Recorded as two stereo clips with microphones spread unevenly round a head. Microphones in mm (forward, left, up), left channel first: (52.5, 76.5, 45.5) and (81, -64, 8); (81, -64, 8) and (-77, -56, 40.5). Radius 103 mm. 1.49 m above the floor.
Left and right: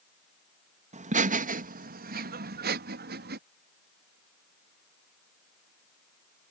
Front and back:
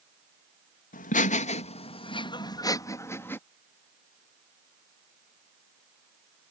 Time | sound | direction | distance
0.9 | laughter | 40° right | ?